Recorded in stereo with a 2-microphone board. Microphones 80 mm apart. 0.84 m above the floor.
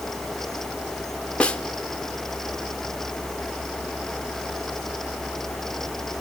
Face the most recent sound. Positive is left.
turn(degrees=15)  # may be behind; listen again after turning